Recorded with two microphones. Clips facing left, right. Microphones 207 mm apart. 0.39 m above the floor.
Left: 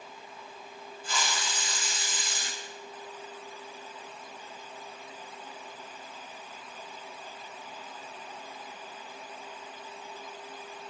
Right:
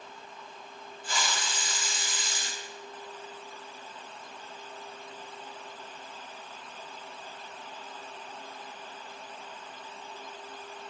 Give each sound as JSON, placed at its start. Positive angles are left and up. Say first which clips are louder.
{"t": 1.0, "sound": "a hiss", "louder": "even", "side_deg": -55, "distance_m": 2.5}